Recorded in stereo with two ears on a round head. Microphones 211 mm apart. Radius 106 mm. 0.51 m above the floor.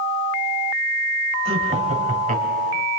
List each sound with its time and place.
1.4 s laughter: 25° right (ahead or behind), 3 m; by 2.9 s 45° right (ahead or behind), 4 m